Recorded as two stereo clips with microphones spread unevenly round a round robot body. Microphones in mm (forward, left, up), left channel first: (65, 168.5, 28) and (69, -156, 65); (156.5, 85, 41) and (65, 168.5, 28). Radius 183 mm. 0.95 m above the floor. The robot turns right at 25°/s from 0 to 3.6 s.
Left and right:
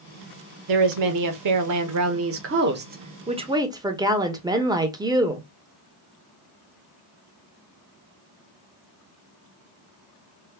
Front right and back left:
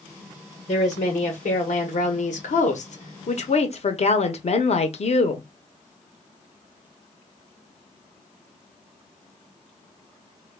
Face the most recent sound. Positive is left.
turn(degrees=-10)